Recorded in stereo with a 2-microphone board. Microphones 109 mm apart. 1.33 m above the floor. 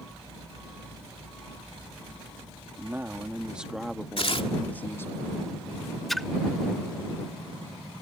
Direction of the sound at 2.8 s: 20° right (ahead or behind).